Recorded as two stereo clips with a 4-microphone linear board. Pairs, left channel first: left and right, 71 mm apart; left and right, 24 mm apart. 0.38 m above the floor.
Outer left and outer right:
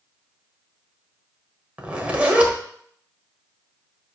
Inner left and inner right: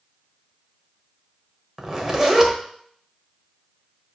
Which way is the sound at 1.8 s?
20° right (ahead or behind).